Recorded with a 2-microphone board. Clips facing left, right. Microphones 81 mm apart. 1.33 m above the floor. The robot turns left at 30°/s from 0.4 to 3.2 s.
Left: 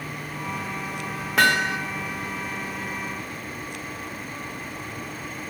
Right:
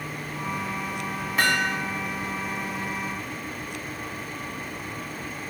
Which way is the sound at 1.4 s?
85° left.